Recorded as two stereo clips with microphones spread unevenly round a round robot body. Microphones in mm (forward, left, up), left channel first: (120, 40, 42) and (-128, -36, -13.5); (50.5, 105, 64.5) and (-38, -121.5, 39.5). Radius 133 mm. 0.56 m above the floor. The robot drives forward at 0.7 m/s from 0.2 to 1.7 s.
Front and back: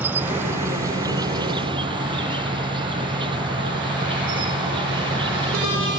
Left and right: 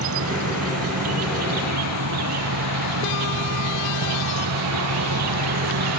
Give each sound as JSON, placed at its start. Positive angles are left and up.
{"t": 0.0, "sound": "an insect", "azimuth_deg": -80}